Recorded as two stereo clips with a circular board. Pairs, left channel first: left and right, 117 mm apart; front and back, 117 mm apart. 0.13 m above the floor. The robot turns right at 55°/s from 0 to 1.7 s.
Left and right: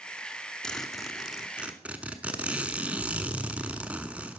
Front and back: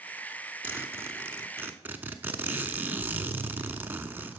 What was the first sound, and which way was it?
A zipper, 155° left.